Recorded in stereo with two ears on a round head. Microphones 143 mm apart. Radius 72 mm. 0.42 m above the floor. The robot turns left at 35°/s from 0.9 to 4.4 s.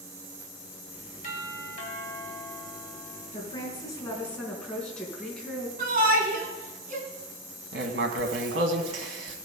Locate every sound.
1.2 s a doorbell: 75° left, 3 m; by 3.2 s 5° left, 3 m
3.3 s a woman speaking: 45° left, 4 m; by 5.7 s 5° left, 4 m
5.8 s a shout: 55° right (ahead or behind), 3.5 m
7.7 s writing: 80° right, 1.7 m